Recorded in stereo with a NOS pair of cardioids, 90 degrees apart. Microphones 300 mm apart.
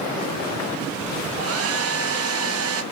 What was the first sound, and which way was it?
A hair dryer, 50° right.